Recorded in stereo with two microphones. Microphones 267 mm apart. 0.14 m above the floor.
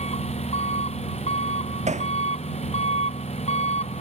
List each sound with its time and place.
0.0 s an engine running: 25° left (ahead or behind)
1.9 s hammering: 25° right (ahead or behind)